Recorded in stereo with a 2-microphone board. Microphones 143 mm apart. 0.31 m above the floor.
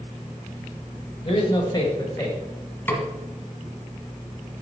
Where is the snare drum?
15° left (ahead or behind), 1.3 m.